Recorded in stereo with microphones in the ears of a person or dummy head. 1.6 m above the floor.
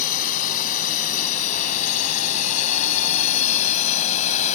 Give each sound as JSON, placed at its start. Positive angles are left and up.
{"t": 0.0, "sound": "a drone", "side_deg": 45}